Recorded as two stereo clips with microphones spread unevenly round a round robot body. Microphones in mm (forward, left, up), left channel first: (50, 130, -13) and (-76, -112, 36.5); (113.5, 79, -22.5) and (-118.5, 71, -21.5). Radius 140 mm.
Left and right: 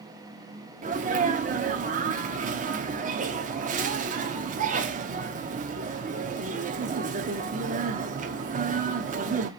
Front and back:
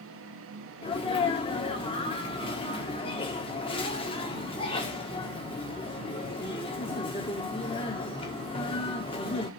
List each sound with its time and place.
0.8 s a sneeze: 55° right, 0.7 m